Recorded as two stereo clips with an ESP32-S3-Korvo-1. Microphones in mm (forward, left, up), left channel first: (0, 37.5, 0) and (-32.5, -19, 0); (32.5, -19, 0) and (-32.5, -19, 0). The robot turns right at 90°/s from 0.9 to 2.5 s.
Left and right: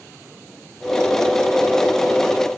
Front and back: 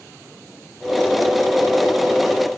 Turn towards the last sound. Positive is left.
No sound to turn to.